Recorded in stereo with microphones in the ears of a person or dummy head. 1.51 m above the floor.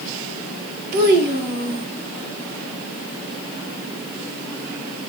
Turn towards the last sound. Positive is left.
turn(degrees=-55)  # may be behind; listen again after turning